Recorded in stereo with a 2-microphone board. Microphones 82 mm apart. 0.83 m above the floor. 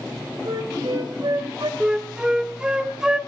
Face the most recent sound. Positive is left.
turn(degrees=-10)  # may be behind; listen again after turning